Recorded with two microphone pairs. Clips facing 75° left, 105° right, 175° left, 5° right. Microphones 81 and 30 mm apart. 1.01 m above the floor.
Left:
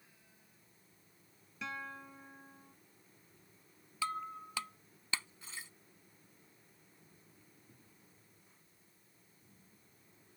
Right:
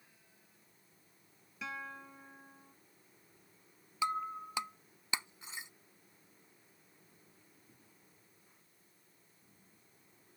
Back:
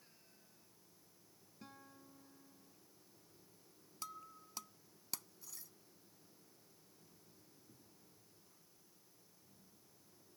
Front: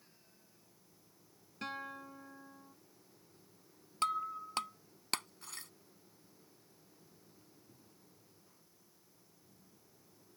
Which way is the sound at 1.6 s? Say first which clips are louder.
Even, front 16 dB; 20° right.